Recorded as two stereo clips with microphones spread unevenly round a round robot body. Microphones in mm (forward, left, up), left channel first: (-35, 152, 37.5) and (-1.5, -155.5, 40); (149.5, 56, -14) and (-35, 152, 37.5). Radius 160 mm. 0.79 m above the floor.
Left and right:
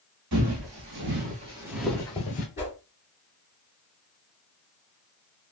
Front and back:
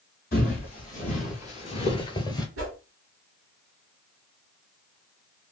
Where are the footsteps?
95° right, 1.2 m; by 2.5 s 55° left, 0.9 m.